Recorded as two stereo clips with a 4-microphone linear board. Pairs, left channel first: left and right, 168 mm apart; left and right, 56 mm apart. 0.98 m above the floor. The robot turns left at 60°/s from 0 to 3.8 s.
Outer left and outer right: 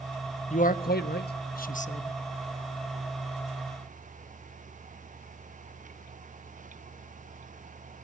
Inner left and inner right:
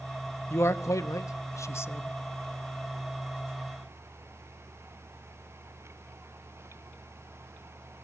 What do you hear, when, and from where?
0.5 s a man speaking: 130° left, 0.9 m; by 2.2 s 30° left, 0.9 m